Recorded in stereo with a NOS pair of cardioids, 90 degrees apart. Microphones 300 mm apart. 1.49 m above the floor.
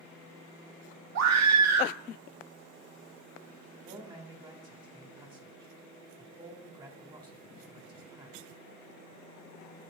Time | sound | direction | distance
1.1 | a scream | 60° right | 1.6 m
3.9 | a man speaking | 15° right | 3 m